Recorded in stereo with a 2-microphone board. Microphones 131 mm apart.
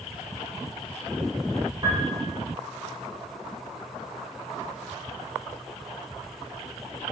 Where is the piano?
20° right (ahead or behind), 3 m.